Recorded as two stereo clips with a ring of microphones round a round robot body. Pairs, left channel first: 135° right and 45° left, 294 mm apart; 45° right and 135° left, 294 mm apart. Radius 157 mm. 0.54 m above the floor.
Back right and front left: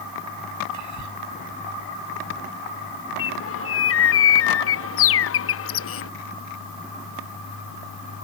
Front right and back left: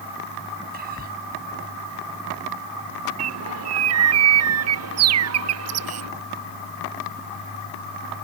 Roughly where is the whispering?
Left.